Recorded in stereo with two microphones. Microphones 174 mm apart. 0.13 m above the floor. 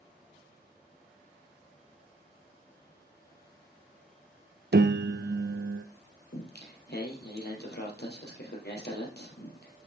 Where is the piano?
80° right, 0.6 m.